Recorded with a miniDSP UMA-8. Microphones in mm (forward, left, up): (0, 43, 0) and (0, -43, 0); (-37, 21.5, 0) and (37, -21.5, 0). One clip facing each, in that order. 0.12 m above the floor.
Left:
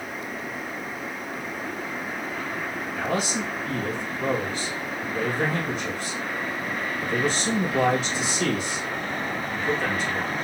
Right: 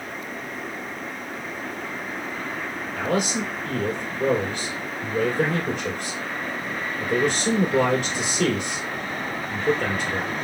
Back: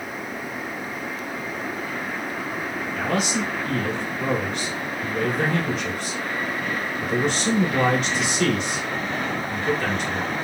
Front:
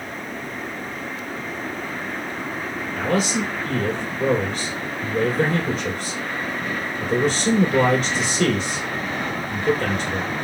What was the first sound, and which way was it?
A man speaking, 75° right.